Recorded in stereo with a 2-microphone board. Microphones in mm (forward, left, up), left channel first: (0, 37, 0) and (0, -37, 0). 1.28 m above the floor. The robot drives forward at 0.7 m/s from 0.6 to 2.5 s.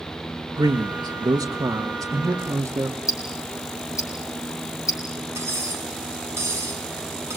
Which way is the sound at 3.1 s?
45° left (ahead or behind).